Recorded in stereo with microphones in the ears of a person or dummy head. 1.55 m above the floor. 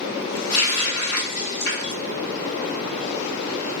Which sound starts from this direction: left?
A running tap, at 0.5 s.